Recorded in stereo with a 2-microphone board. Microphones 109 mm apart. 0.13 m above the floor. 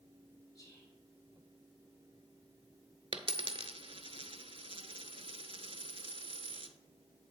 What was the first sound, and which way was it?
Whispering, 30° left (ahead or behind).